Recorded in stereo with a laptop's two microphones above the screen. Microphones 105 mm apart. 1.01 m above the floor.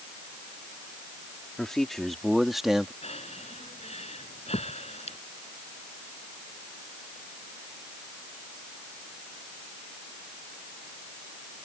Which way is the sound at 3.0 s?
85° left.